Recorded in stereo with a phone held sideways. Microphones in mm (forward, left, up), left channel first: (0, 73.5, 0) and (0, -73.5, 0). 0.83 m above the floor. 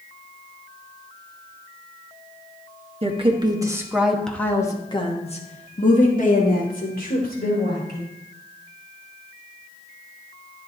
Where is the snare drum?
I don't hear a snare drum.